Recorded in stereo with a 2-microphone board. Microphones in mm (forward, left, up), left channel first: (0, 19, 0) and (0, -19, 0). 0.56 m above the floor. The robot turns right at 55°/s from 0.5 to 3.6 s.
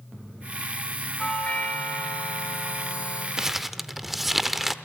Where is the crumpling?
15° right (ahead or behind), 0.7 m; by 4.8 s 5° right (ahead or behind), 0.7 m.